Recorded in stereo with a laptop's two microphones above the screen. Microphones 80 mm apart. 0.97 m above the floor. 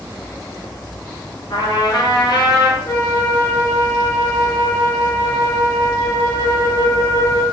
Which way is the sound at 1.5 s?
75° left (ahead or behind).